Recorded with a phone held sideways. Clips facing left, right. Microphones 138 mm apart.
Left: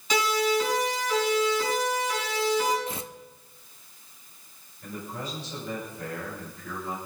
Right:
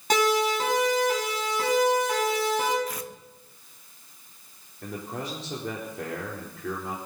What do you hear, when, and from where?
0.1 s a siren: 50° right (ahead or behind), 8.5 m; by 2.8 s 60° right (ahead or behind), 5.5 m
2.9 s tearing paper: 25° left (ahead or behind), 0.7 m
4.8 s a man speaking: 75° right (ahead or behind), 4 m